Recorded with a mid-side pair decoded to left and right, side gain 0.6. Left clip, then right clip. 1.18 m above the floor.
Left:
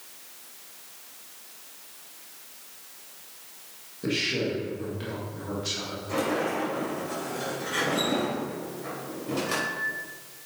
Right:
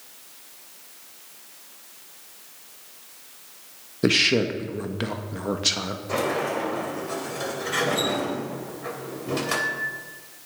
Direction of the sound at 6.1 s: 35° right.